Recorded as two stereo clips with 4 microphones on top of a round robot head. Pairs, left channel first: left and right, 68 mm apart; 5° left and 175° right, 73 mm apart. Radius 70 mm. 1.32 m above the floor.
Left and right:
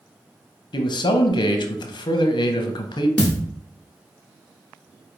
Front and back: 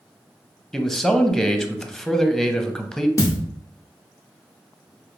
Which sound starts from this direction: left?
A man speaking, at 0.7 s.